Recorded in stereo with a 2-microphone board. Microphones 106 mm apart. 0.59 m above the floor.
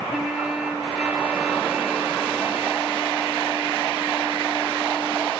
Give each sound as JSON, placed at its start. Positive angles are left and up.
{"t": 0.1, "sound": "a trumpet", "side_deg": -10, "distance_m": 3.0}